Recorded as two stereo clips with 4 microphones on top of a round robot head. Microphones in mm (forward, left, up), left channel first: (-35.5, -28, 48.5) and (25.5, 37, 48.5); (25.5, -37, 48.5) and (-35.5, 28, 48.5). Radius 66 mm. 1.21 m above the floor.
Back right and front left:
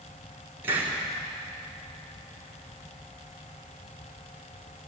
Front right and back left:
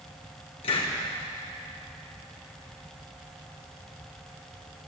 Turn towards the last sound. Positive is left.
turn(degrees=-20)